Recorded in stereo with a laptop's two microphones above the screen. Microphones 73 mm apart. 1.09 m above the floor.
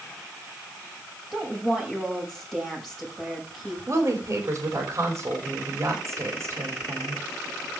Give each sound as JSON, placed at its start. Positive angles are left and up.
{"t": 1.3, "sound": "a woman speaking", "side_deg": 5, "distance_m": 6.5}
{"t": 3.9, "sound": "a woman speaking", "side_deg": -40, "distance_m": 3.0}